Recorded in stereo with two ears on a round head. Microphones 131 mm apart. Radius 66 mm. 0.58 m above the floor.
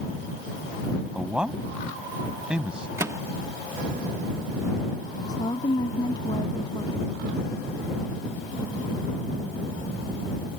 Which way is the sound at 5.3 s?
25° left (ahead or behind).